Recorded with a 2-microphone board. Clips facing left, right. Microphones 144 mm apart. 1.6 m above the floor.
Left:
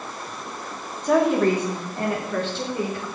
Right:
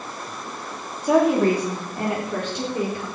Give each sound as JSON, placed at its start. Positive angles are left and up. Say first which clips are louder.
{"t": 1.0, "sound": "a woman speaking", "louder": "right 1 dB", "side_deg": -10, "distance_m": 3.0}